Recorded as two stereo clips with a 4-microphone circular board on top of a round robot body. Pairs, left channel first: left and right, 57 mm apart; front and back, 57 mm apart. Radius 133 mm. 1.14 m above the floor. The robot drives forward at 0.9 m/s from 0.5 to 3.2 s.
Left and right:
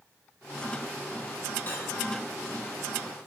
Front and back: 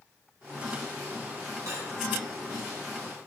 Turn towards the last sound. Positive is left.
turn(degrees=155)